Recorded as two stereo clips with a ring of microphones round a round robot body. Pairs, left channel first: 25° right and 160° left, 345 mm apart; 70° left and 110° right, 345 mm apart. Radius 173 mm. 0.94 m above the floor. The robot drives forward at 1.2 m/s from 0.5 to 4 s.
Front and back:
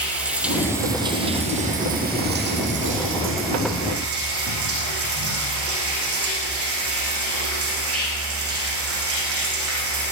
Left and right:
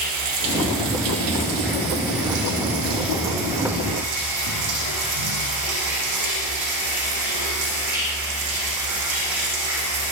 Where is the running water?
115° right, 3.5 m; by 10.1 s 150° right, 6.5 m.